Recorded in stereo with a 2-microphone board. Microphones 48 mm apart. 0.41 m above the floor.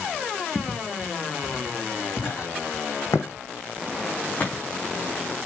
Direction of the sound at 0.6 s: 25° left (ahead or behind).